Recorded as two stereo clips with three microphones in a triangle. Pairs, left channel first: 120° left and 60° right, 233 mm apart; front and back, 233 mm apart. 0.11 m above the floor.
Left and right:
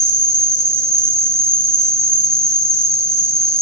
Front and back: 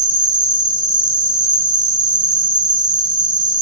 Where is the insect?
135° right, 1.6 m.